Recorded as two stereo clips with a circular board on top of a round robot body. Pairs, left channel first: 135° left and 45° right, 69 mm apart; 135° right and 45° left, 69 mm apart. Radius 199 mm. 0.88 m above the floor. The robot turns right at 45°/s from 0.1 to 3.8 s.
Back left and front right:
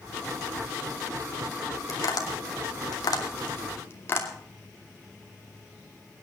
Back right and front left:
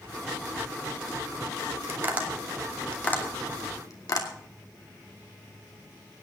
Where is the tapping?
105° left, 2.5 m; by 4.3 s 170° right, 2.5 m.